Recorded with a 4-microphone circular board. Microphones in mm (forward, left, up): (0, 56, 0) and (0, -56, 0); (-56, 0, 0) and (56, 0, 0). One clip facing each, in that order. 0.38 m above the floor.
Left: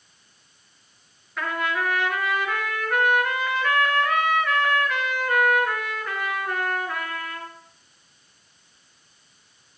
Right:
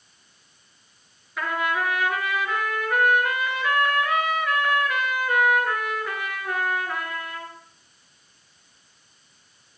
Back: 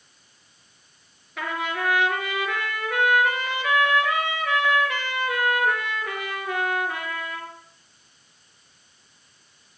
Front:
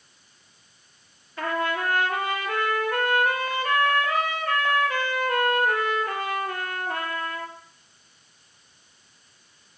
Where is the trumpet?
175° right, 5 m.